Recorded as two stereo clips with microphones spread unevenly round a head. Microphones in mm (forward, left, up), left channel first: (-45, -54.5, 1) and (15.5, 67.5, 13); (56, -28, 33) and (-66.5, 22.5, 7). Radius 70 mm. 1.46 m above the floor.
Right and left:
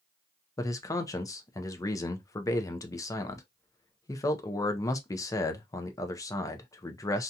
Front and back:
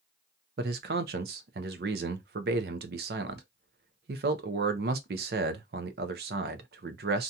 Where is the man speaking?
175° left, 0.5 m.